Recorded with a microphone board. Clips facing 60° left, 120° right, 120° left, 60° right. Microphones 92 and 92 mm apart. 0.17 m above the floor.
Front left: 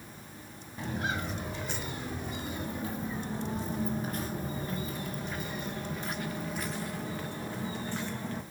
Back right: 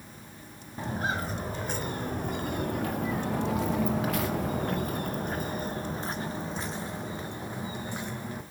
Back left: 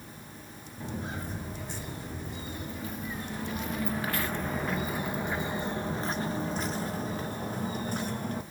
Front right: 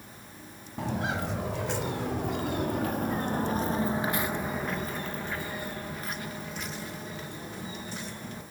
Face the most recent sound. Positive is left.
turn(degrees=165)